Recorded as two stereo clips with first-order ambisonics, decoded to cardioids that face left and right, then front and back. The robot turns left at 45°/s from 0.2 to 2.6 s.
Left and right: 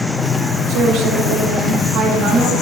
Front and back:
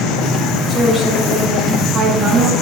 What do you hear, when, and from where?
0.7 s a woman speaking: 75° right, 2.5 m; by 2.5 s 160° right, 2.5 m